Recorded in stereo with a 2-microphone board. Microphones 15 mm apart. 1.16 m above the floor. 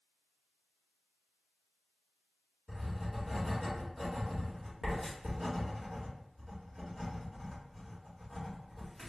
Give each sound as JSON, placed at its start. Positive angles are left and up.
{"t": 2.7, "sound": "writing", "side_deg": -10, "distance_m": 1.7}